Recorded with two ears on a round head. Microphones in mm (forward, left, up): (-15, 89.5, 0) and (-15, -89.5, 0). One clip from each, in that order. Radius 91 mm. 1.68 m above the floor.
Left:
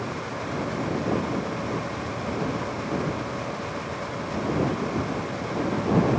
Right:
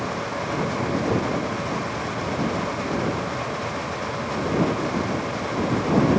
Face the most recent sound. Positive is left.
No sound to turn to.